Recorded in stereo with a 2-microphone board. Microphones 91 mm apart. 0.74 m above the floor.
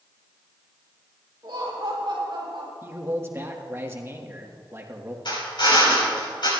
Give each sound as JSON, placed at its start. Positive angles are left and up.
{"t": 1.4, "sound": "laughter", "side_deg": -50, "distance_m": 4.5}
{"t": 2.8, "sound": "a man speaking", "side_deg": -30, "distance_m": 1.3}
{"t": 5.2, "sound": "a drill", "side_deg": 60, "distance_m": 5.5}